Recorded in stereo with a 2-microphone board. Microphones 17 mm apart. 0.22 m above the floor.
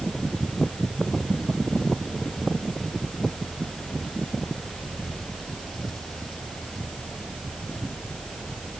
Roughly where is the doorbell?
I don't hear a doorbell.